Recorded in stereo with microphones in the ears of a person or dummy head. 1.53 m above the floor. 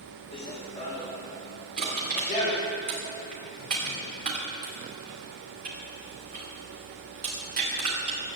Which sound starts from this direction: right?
Crushing, at 1.8 s.